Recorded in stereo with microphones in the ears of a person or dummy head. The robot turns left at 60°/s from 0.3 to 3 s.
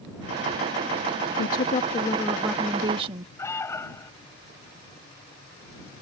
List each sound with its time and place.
1.4 s a woman speaking: 65° left; by 3.3 s 30° right
3.4 s an alarm: 15° left (ahead or behind)